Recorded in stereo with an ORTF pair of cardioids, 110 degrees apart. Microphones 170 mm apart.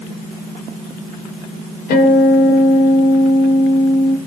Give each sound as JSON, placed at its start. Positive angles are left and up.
{"t": 1.9, "sound": "a guitar", "azimuth_deg": 60, "distance_m": 3.5}